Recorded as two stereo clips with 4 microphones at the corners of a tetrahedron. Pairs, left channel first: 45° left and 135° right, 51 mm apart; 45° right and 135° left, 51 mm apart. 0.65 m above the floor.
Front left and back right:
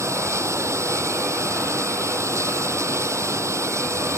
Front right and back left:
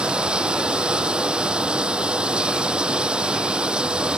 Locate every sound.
0.0 s running water: 155° right